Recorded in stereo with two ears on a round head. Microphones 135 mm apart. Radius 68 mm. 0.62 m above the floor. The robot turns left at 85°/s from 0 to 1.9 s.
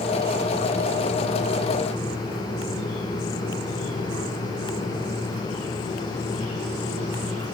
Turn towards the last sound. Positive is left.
No sound to turn to.